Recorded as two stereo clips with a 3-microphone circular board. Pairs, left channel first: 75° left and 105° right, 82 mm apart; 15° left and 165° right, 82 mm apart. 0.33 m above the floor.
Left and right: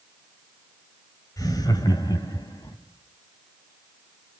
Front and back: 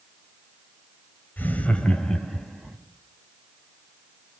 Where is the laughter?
75° left, 1.9 m; by 2.8 s 110° left, 3 m.